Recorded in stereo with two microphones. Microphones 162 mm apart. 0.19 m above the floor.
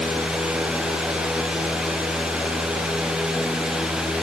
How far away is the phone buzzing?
I don't hear a phone buzzing.